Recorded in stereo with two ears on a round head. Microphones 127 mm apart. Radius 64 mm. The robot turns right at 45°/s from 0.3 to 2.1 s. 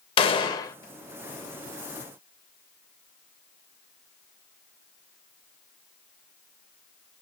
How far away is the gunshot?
About 0.5 m.